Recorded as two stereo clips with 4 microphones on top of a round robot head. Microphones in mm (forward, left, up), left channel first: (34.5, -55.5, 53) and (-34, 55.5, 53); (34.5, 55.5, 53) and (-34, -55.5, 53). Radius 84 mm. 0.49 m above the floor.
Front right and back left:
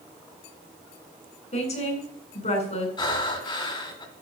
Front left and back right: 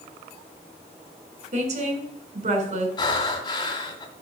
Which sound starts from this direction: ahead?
Breathing, at 3.0 s.